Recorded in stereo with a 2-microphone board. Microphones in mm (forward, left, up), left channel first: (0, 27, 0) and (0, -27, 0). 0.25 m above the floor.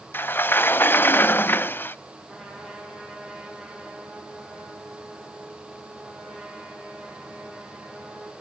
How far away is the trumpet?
About 7 m.